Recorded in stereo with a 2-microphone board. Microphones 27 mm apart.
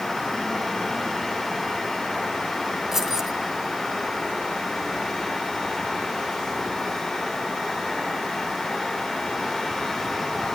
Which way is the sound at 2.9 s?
10° right (ahead or behind).